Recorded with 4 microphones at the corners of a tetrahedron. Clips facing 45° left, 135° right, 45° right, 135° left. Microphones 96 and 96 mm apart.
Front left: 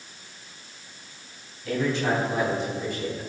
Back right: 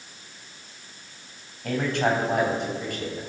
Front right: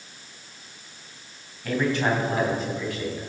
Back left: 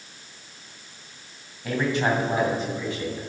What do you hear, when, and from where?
1.6 s a man speaking: 155° right, 3 m; by 3.2 s 160° right, 3.5 m